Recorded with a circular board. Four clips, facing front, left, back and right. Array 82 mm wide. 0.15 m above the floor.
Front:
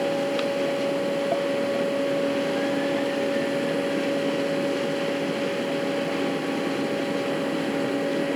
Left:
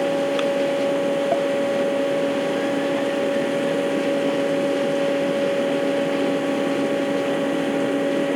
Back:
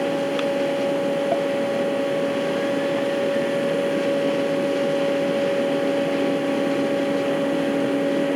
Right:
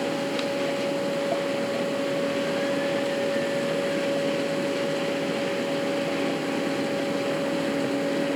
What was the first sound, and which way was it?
Only background noise.